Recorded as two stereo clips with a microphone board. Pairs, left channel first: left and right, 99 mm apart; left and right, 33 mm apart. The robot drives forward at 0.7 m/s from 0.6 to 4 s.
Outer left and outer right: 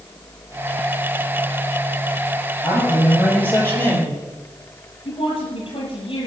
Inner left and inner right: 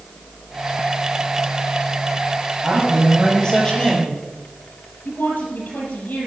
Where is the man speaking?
20° left (ahead or behind), 6 m; by 4.2 s 15° left (ahead or behind), 6.5 m.